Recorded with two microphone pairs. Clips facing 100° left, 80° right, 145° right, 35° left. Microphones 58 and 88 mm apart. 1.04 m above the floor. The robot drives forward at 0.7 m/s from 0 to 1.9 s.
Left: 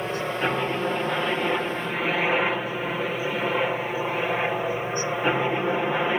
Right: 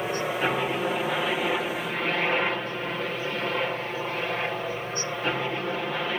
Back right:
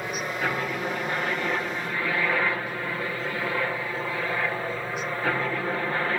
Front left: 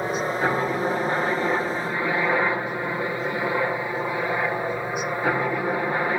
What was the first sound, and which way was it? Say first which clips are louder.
A helicopter: even, front left 5 dB; 10° left.